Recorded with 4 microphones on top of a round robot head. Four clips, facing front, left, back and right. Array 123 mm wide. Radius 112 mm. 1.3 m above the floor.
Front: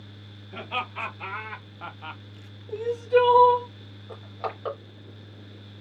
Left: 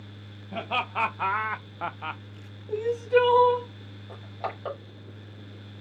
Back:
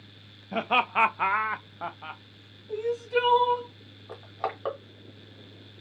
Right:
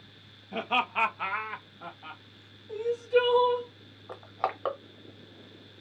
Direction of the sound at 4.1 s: 100° right.